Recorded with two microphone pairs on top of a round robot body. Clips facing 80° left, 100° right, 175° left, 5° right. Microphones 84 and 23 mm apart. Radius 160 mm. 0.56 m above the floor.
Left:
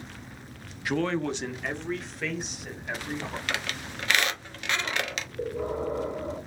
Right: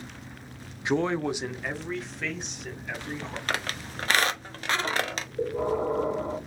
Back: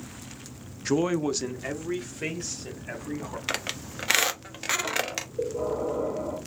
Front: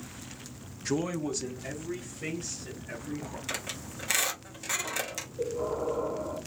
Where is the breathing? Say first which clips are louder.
Right 4 dB, back 2 dB; 145° right, 2.5 m.